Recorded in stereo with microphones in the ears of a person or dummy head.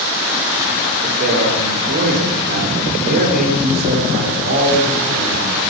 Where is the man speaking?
55° right (ahead or behind), 4 m.